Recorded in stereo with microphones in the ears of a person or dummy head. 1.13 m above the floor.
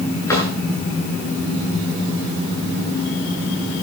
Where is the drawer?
20° left (ahead or behind), 8.5 m.